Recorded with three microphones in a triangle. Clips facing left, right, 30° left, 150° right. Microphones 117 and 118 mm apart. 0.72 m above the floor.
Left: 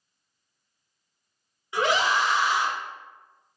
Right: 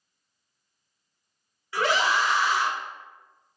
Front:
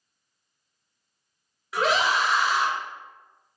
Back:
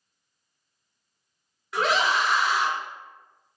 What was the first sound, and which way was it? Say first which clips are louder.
A scream: left 1 dB, even; 115° left.